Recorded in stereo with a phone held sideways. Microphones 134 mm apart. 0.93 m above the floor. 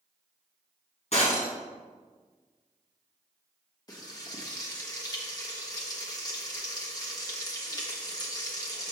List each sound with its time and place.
1.1 s breaking glass: 55° left (ahead or behind), 2 m
3.9 s frying: 30° left (ahead or behind), 1.3 m